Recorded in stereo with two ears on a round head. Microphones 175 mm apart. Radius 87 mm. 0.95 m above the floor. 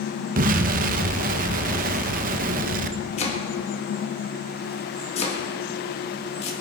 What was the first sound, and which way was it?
An explosion, 45° right (ahead or behind).